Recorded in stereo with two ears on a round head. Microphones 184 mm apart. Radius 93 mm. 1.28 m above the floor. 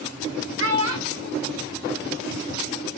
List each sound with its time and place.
0.6 s a child speaking: 60° right (ahead or behind), 1.7 m; by 2.5 s 75° right (ahead or behind), 2.5 m